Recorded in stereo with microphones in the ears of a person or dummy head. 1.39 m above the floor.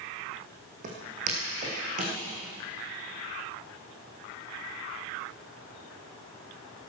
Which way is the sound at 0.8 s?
45° right (ahead or behind).